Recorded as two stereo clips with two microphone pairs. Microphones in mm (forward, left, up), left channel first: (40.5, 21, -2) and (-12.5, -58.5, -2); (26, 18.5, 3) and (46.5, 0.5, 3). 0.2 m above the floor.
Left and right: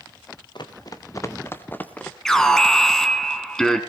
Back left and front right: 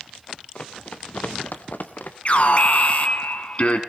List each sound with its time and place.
0.6 s running footsteps: 95° left, 1.6 m; by 2.1 s 135° left, 2.5 m
2.2 s an alarm: 140° left, 1.7 m